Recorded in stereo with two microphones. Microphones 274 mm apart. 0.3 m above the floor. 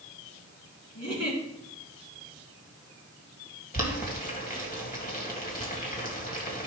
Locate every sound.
0.9 s a giggle: 70° left (ahead or behind), 3.5 m
3.7 s boiling: 30° left (ahead or behind), 1.9 m